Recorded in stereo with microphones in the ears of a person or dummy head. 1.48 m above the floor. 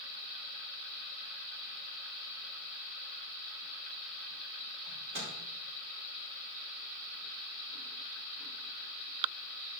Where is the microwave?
65° right (ahead or behind), 4.5 m.